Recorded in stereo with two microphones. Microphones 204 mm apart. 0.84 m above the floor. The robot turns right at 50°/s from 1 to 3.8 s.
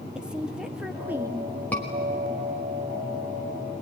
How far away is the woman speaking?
About 1.1 m.